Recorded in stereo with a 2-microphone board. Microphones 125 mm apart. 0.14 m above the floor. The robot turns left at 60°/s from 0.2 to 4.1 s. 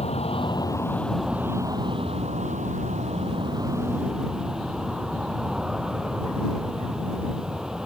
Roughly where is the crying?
No crying in this recording.